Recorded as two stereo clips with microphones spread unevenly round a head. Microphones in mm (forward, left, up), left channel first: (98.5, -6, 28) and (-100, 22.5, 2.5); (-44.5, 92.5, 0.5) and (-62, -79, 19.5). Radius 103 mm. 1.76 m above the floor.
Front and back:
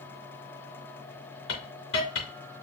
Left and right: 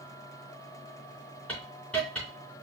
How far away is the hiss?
About 3 m.